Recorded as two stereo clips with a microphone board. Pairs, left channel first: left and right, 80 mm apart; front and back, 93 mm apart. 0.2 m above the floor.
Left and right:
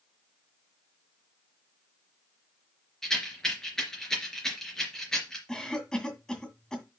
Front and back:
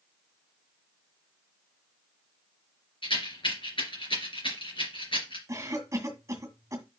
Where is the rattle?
10° left, 3.5 m.